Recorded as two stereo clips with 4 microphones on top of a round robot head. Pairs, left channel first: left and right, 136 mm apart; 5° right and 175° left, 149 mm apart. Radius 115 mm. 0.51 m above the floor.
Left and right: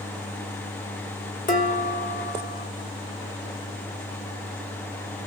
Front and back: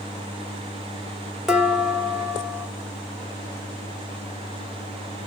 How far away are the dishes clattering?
About 1.2 m.